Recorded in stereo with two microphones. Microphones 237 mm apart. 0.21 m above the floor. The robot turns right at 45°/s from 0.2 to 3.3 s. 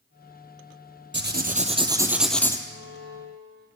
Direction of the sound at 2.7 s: 75° right (ahead or behind).